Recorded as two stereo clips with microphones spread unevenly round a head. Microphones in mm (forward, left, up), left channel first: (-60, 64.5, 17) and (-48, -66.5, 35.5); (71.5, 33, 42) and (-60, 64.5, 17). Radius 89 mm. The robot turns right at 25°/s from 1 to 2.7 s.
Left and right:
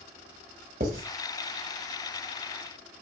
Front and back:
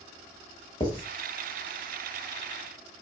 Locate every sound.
0.8 s writing: 75° right, 1.3 m